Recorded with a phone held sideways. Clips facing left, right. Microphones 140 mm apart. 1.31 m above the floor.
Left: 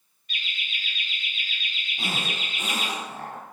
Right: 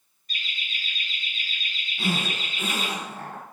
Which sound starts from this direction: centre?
A zipper, at 2.0 s.